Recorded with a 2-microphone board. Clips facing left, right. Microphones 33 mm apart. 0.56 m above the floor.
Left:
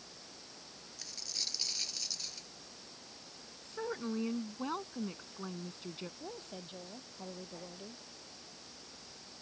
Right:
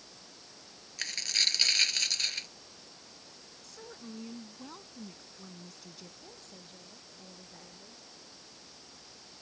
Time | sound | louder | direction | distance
1.0 | a dropped coin | right 12 dB | 70° right (ahead or behind) | ?
3.6 | a woman speaking | left 10 dB | 45° left (ahead or behind) | ?
6.2 | a woman speaking | left 5 dB | 40° left (ahead or behind) | ?